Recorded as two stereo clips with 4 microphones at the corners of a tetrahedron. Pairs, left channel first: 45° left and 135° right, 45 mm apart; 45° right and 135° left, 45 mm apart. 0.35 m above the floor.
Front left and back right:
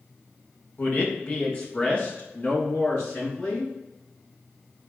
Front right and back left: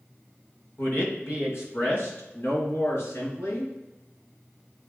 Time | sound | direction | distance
0.8 | a man speaking | 10° right | 2.5 m